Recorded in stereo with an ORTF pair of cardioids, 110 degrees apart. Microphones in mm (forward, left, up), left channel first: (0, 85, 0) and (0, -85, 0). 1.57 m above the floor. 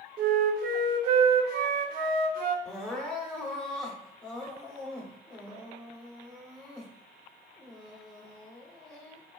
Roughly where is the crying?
Ahead.